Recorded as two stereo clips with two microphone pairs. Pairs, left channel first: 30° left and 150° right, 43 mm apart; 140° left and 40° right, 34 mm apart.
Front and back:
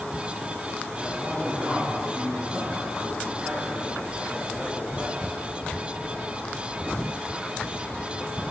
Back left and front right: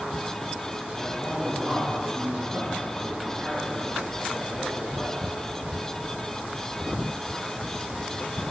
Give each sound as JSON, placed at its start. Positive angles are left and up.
{"t": 1.0, "sound": "a man speaking", "azimuth_deg": -115, "distance_m": 5.5}